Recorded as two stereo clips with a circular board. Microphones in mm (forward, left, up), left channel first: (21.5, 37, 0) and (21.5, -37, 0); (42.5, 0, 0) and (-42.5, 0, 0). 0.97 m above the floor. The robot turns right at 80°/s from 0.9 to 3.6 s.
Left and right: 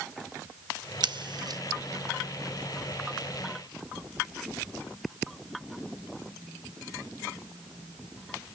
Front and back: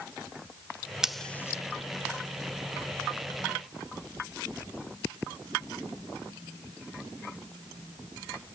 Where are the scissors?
95° right, 0.6 m; by 1.6 s 50° right, 0.6 m.